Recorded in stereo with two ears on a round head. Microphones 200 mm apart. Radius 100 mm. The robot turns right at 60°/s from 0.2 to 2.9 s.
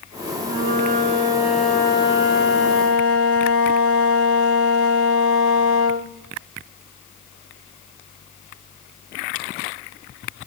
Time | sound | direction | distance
0.4 | a flute | 70° right | 2.5 m